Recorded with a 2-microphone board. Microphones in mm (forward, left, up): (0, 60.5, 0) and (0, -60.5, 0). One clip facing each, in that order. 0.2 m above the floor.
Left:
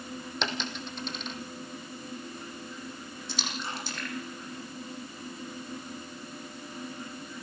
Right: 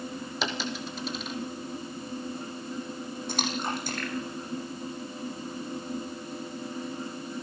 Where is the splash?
50° right (ahead or behind), 6 m.